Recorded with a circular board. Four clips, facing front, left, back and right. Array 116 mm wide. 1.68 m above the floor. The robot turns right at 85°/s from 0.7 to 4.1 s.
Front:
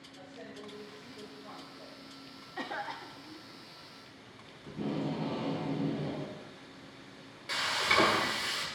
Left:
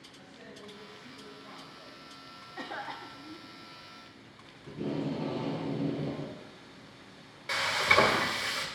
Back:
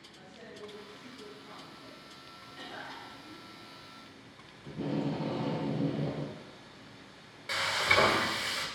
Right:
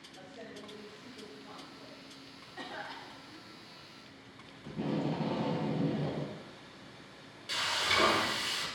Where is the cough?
20° left, 0.9 m; by 3.5 s 100° left, 0.9 m.